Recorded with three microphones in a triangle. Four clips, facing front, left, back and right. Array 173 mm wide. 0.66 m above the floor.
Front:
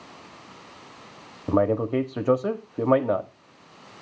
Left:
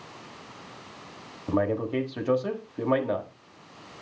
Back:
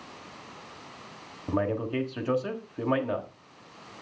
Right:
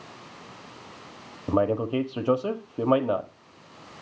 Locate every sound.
1.5 s a man speaking: 20° right, 1.3 m